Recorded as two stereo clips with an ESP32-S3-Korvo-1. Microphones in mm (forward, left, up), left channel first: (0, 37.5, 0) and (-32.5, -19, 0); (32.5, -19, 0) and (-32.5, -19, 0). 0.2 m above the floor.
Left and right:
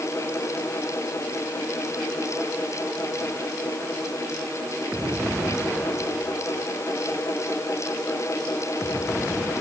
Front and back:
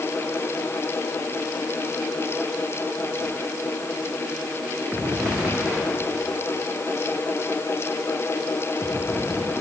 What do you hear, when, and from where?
Only background noise.